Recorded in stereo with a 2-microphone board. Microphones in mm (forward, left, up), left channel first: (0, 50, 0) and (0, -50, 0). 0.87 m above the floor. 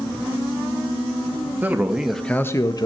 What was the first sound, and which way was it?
A man speaking, 15° right (ahead or behind).